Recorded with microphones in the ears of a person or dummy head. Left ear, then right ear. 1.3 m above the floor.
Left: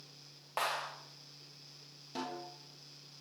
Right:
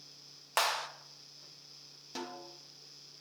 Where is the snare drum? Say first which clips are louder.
Left 2 dB; 25° right (ahead or behind), 1.3 m.